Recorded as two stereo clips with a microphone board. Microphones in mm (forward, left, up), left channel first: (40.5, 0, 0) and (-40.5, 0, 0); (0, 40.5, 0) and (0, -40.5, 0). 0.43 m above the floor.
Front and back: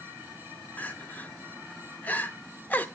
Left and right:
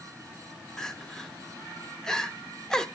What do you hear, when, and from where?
0.8 s crying: 20° left, 0.7 m